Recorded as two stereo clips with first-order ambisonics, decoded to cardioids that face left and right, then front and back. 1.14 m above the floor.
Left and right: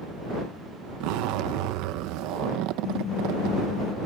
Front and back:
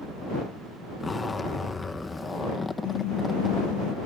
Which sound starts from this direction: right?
A zipper, at 1.0 s.